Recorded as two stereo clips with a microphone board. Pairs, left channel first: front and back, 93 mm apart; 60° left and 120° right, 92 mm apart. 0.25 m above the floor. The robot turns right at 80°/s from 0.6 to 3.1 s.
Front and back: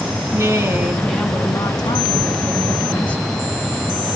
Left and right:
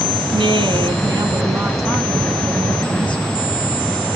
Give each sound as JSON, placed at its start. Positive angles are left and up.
{"t": 0.3, "sound": "a woman speaking", "azimuth_deg": -125, "distance_m": 2.5}